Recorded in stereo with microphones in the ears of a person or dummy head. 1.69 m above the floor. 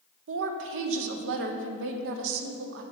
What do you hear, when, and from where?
0.3 s a woman speaking: 70° right (ahead or behind), 0.7 m